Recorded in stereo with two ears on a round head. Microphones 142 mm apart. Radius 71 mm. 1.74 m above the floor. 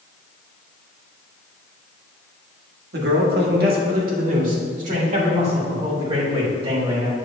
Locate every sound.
2.9 s a man speaking: 75° right (ahead or behind), 1.8 m; by 7.2 s 30° right (ahead or behind), 3.5 m